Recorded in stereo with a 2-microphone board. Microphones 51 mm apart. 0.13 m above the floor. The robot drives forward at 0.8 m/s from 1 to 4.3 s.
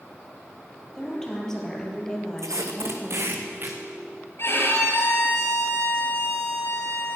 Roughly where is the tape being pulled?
Right.